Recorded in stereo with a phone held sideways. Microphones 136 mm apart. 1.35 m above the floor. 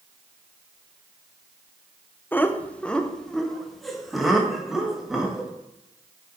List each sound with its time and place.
2.3 s laughter: 15° left (ahead or behind), 0.7 m; by 5.5 s 5° right (ahead or behind), 2.5 m